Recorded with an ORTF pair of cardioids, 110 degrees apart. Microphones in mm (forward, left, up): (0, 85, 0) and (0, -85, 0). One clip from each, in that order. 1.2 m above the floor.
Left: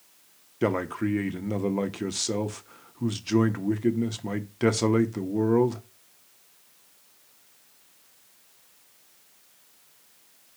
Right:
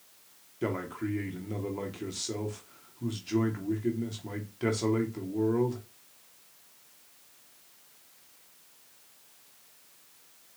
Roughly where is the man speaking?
Ahead left.